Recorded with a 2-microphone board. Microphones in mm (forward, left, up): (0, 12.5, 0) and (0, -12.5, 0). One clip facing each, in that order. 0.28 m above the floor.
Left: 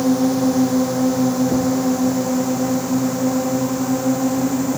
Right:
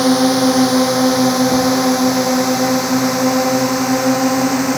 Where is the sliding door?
No sliding door in this recording.